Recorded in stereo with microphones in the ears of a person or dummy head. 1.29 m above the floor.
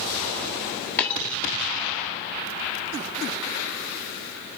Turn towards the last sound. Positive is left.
turn(degrees=10)  # may be behind; listen again after turning